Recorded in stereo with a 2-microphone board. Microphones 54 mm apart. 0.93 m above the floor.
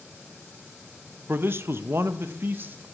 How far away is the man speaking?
About 0.5 m.